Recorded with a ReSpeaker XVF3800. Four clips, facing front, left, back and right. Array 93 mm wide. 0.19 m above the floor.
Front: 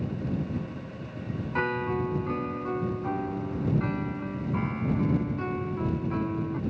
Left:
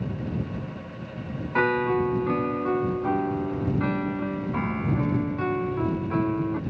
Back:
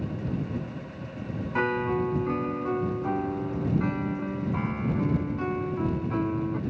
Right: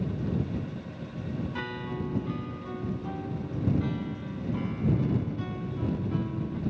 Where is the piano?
100° left.